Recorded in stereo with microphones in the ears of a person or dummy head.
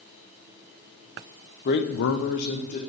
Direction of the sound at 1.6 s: 50° left (ahead or behind).